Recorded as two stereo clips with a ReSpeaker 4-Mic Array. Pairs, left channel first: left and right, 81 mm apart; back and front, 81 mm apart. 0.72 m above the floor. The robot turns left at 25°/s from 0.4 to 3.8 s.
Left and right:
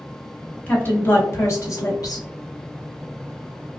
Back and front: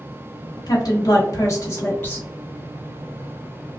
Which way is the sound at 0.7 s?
155° left.